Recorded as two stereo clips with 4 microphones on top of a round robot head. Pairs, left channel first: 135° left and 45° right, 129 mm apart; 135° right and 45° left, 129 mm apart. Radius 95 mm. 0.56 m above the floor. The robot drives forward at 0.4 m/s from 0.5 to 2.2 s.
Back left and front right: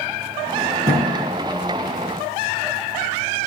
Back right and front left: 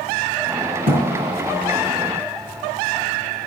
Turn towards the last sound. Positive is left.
turn(degrees=30)